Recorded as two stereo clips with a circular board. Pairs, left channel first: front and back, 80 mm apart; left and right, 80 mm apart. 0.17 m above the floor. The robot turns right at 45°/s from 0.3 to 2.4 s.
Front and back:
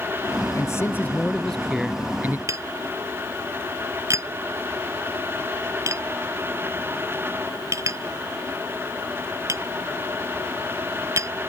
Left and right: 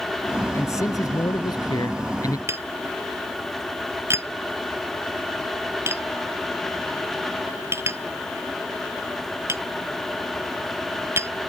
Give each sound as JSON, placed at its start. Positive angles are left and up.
{"t": 0.5, "sound": "a man speaking", "azimuth_deg": 40}
{"t": 2.5, "sound": "tapping", "azimuth_deg": -140}